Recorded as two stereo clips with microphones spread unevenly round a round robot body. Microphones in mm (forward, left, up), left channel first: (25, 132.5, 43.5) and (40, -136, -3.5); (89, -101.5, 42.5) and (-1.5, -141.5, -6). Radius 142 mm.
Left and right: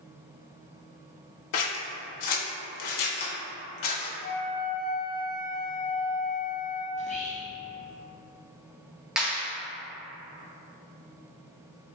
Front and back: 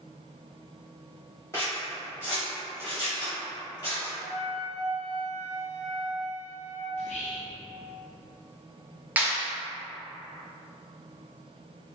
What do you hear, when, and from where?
1.5 s scissors: 90° left, 0.5 m
4.2 s a flute: 155° left, 0.8 m
6.9 s whispering: 25° left, 0.8 m
9.2 s a clap: 160° right, 0.7 m